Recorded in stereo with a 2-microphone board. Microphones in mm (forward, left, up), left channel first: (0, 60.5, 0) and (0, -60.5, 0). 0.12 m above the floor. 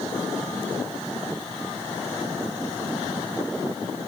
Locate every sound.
Only background noise.